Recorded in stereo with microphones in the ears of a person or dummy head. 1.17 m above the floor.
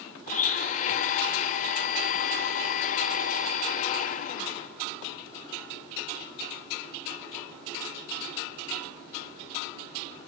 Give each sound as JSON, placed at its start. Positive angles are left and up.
{"t": 0.3, "sound": "a blender", "side_deg": 40, "distance_m": 0.7}